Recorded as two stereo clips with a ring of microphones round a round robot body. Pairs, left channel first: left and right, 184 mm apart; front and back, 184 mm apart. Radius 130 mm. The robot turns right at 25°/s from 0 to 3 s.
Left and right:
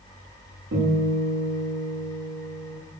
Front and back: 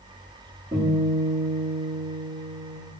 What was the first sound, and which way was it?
A guitar, 110° right.